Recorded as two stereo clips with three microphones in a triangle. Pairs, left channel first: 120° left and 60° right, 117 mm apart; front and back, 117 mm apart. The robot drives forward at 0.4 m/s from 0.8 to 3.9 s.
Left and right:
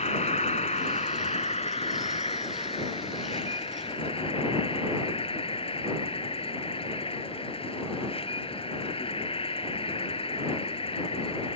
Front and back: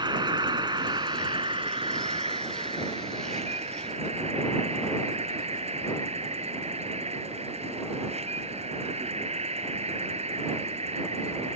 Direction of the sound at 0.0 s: 130° left.